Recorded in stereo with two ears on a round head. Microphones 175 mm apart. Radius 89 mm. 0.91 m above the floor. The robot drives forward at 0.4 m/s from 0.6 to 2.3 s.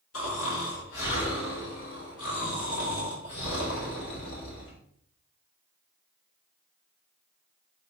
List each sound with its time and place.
0.1 s snoring: 75° left (ahead or behind), 3 m; by 4.8 s 65° left (ahead or behind), 3.5 m